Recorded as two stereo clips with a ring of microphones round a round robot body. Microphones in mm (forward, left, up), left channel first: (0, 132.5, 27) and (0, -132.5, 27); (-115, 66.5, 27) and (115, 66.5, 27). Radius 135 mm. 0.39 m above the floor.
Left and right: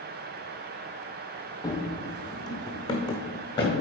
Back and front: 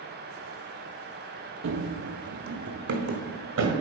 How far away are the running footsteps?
About 0.6 m.